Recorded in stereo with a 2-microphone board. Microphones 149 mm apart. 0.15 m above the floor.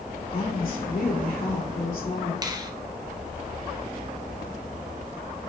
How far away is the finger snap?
About 0.8 m.